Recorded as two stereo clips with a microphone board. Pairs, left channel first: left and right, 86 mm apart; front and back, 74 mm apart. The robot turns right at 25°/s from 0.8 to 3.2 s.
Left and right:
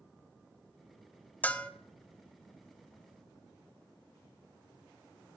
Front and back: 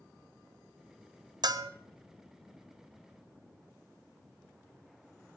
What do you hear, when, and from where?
1.4 s a bell: 160° left, 0.5 m; by 1.7 s 170° left, 0.5 m